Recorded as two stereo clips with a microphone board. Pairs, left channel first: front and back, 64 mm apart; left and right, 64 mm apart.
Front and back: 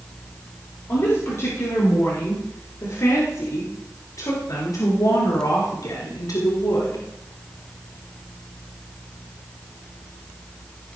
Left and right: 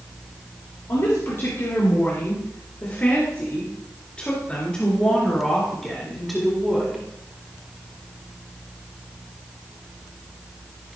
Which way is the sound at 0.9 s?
40° left.